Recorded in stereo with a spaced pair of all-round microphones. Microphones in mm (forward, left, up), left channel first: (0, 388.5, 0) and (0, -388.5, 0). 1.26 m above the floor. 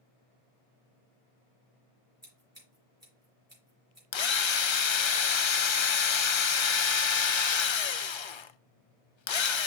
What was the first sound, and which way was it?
Scissors, 20° right (ahead or behind).